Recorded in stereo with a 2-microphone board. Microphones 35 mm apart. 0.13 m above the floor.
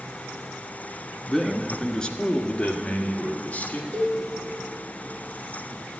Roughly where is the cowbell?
Centre.